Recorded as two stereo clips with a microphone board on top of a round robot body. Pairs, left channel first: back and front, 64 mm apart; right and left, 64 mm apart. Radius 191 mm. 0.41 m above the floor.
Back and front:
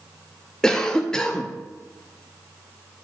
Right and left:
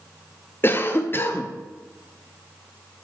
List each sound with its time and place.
0.6 s a cough: 110° right, 0.9 m